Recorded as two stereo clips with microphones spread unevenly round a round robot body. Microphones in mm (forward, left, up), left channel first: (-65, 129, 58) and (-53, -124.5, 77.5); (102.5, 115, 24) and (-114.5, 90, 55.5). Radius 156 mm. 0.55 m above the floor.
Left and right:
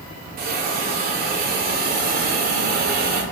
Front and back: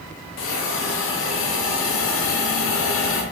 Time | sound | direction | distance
0.4 | a hiss | 30° right | 0.6 m